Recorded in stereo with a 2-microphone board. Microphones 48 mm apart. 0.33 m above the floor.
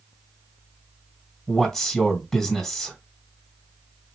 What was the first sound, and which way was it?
A man speaking, 10° left (ahead or behind).